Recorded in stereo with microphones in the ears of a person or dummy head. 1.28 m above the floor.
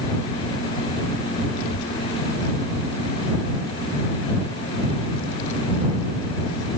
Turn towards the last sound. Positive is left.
turn(degrees=60)  # may be behind; listen again after turning